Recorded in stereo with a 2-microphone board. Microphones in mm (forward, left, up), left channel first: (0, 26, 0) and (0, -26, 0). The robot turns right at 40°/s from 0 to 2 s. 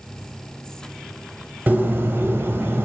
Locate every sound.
1.7 s a bird: 35° right (ahead or behind), 0.7 m; by 2.9 s 50° right (ahead or behind), 0.7 m